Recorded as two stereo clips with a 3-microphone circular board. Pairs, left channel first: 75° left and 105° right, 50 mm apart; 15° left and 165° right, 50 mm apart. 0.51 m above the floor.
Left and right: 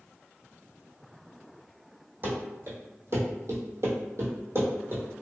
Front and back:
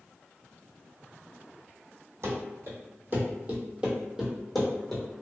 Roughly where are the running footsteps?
Behind right.